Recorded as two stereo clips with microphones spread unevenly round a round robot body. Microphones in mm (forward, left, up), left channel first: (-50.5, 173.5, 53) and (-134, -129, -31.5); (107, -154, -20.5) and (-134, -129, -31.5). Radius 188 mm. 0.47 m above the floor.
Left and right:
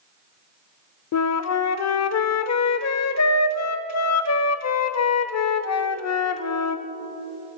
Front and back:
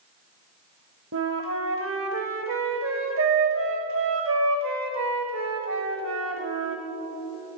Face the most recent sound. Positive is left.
turn(degrees=120)